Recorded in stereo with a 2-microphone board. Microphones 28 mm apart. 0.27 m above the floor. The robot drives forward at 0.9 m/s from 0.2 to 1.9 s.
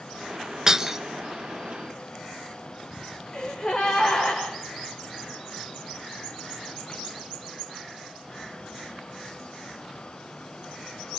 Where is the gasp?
25° left (ahead or behind), 7 m.